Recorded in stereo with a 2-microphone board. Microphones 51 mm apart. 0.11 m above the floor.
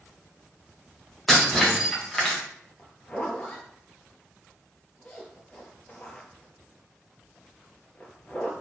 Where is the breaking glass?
5° left (ahead or behind), 2 m.